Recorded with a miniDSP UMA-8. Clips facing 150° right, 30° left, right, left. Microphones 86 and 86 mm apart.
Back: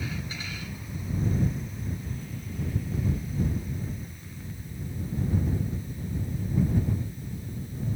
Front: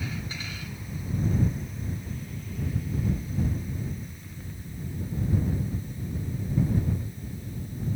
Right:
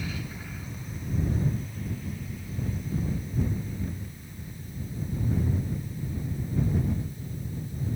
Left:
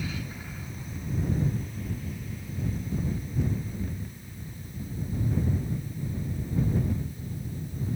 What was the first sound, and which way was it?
Only background noise.